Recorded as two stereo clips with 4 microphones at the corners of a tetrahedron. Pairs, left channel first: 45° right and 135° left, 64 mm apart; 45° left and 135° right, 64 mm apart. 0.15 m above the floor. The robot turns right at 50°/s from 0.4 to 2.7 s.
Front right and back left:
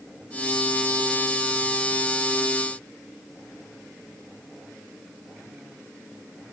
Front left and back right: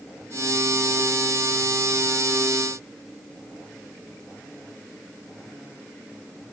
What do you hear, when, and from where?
Only background noise.